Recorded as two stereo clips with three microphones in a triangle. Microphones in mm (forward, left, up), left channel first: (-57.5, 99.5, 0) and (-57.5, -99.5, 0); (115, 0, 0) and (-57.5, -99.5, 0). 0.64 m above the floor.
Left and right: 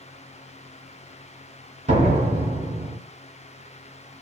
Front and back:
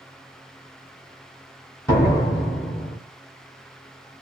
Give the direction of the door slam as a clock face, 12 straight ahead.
1 o'clock.